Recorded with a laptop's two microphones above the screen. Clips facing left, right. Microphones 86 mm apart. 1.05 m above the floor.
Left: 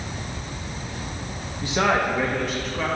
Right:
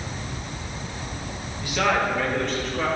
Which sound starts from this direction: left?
A man speaking, at 1.6 s.